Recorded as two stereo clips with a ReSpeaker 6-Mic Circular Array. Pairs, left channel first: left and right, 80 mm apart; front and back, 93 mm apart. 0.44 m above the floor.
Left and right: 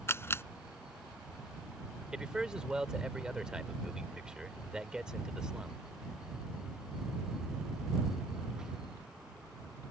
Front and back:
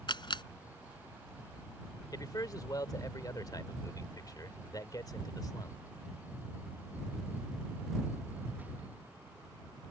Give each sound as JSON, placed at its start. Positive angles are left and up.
{"t": 0.1, "sound": "a camera shutter", "azimuth_deg": 30}
{"t": 2.1, "sound": "a man speaking", "azimuth_deg": -15}